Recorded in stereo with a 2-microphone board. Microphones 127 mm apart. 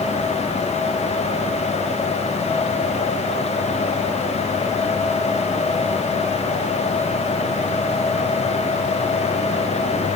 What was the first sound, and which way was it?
Only background noise.